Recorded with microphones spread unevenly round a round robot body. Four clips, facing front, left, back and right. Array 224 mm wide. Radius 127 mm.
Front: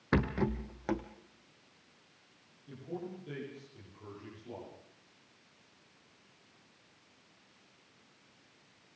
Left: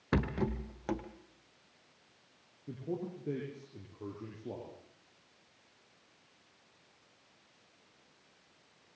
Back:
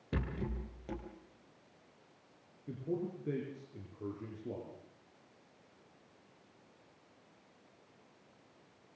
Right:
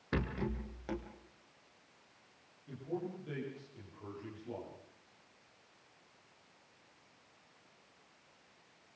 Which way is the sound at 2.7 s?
140° left.